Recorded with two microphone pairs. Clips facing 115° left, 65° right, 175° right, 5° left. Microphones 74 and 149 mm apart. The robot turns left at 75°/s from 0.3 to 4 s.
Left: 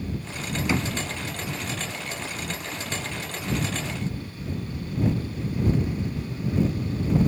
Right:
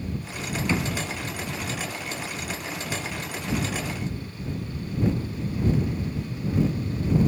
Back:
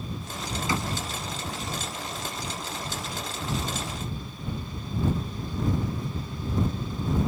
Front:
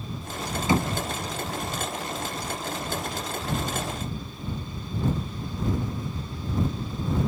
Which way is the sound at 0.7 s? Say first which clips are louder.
Even, front 7 dB; 40° left.